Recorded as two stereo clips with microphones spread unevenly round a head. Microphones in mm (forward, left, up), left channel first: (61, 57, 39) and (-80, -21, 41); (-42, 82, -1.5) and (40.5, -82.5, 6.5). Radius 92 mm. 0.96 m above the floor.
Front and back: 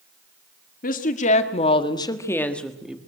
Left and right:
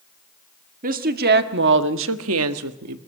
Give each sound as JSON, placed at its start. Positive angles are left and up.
{"t": 0.8, "sound": "a woman speaking", "azimuth_deg": -15, "distance_m": 1.8}